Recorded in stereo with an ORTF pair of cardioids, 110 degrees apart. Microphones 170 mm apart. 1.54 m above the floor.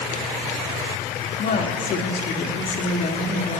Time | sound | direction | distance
1.4 | a woman speaking | 55° left | 3.5 m